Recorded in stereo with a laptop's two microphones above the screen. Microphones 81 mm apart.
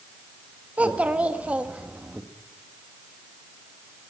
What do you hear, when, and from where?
0.8 s a child speaking: 20° right (ahead or behind), 1.1 m